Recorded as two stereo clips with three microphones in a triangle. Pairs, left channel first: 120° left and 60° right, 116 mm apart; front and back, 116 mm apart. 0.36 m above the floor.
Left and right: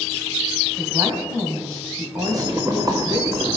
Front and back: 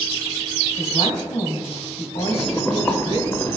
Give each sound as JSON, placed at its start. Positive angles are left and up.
{"t": 0.8, "sound": "a woman speaking", "azimuth_deg": -5, "distance_m": 2.5}
{"t": 2.2, "sound": "boiling", "azimuth_deg": -50, "distance_m": 1.3}